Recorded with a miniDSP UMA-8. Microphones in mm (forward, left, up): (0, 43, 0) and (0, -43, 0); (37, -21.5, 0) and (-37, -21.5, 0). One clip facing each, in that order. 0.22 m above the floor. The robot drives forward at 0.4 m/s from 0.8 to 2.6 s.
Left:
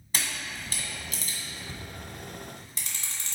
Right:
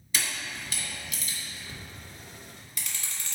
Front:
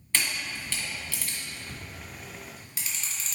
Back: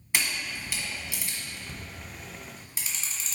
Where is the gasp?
I don't hear a gasp.